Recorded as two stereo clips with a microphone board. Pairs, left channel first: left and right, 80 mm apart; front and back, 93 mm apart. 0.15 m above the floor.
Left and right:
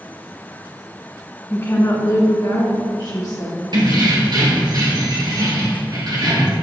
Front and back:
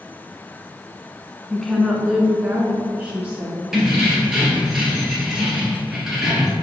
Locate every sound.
1.5 s a woman speaking: 75° left, 1.2 m; by 3.6 s 115° left, 3.5 m
3.7 s keys jangling: 95° right, 2.5 m